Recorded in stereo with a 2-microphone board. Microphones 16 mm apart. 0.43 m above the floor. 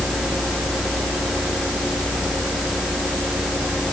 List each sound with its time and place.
Only background noise.